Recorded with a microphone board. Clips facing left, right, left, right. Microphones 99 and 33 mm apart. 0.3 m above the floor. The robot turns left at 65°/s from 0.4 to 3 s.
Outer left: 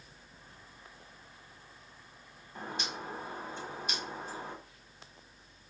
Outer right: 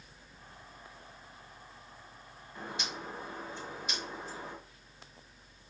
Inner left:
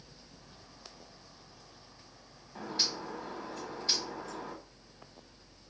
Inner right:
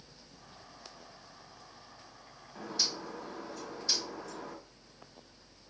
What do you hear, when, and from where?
2.5 s a bird: 40° left (ahead or behind), 1.1 m; by 4.5 s 55° left (ahead or behind), 1.1 m